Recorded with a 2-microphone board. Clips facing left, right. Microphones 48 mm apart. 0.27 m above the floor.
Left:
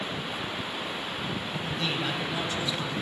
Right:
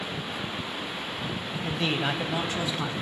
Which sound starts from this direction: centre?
A man speaking, at 1.6 s.